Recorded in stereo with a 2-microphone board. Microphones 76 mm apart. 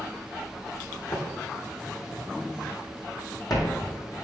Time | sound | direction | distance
1.1 | footsteps | 65° left (ahead or behind) | 3 m